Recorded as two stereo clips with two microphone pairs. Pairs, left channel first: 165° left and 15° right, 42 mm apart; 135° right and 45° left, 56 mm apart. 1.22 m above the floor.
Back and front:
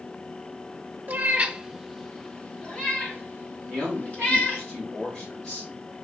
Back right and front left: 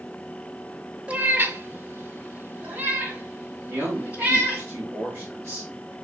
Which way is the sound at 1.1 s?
10° right.